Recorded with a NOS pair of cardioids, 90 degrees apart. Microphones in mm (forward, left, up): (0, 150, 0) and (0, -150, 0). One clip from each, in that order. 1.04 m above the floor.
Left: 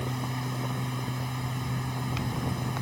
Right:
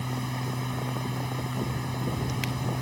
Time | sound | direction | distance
0.0 | a machine running | 5° right | ?